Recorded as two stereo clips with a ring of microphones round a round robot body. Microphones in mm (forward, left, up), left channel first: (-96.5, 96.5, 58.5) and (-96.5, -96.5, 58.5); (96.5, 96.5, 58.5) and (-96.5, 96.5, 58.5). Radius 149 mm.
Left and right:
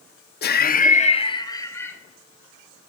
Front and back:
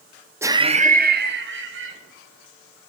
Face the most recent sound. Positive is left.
turn(degrees=170)